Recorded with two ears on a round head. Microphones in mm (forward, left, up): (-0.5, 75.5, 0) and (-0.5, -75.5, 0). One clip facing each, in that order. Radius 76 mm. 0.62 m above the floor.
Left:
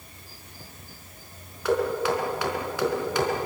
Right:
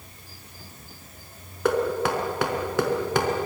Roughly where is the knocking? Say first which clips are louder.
Right 1 dB; right.